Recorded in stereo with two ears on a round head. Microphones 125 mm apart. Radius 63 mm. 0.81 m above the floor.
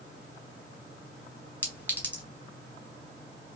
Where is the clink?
15° left (ahead or behind), 1.5 m.